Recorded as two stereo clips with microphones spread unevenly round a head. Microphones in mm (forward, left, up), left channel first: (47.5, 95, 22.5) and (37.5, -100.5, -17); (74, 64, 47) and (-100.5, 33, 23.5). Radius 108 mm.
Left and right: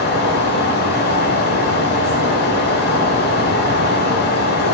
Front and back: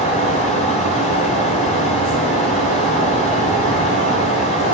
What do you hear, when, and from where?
0.0 s a fan: 55° left, 6 m